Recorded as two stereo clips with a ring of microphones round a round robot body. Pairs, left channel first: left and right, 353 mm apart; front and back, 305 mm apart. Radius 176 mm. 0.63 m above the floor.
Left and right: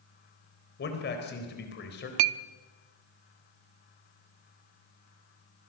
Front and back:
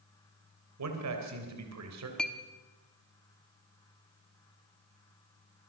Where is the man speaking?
150° left, 3.5 m.